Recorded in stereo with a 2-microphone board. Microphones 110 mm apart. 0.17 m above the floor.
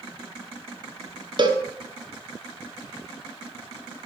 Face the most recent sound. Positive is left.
turn(degrees=-45)  # may be behind; listen again after turning